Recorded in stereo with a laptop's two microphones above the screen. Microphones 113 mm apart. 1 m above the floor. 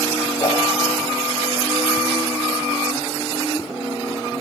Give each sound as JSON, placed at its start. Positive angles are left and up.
{"t": 0.4, "sound": "a whoosh", "side_deg": 30, "distance_m": 3.0}